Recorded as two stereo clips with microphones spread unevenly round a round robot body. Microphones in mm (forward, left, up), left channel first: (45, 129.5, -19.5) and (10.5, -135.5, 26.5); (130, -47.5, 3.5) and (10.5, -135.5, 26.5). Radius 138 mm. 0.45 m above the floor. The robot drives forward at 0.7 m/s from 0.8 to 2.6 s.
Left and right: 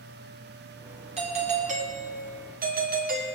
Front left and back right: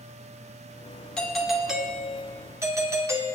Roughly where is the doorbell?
Ahead right.